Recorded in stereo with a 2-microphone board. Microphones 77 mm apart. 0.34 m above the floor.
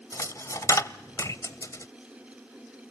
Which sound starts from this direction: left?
A dropped coin, at 0.1 s.